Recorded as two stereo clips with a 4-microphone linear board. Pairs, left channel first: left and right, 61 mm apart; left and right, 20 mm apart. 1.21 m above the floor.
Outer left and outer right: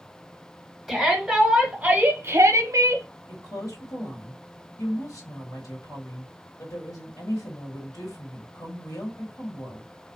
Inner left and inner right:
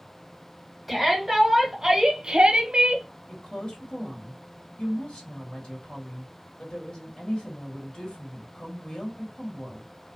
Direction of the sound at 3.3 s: 65° left (ahead or behind).